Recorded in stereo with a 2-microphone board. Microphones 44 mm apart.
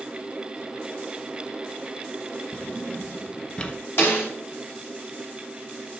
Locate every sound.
2.5 s a drawer: 20° left (ahead or behind), 0.9 m
4.0 s a snare drum: 55° left (ahead or behind), 5 m